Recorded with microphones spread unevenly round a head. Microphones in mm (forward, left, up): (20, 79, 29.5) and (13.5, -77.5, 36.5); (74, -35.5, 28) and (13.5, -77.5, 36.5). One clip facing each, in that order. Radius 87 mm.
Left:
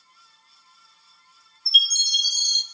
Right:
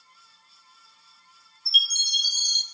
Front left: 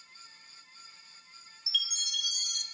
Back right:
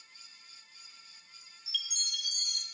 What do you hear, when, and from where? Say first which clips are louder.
1.7 s a chime: left 3 dB, front left 4 dB; 125° left, 0.7 m